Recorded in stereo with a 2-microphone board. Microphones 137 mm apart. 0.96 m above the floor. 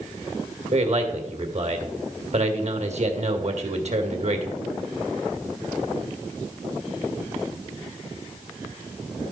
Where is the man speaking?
55° right (ahead or behind), 1.7 m.